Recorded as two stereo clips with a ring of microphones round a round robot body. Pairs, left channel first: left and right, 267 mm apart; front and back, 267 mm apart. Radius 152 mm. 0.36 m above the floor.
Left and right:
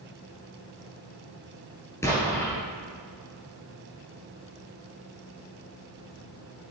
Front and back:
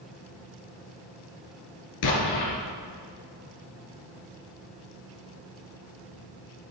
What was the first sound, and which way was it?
An explosion, 10° left.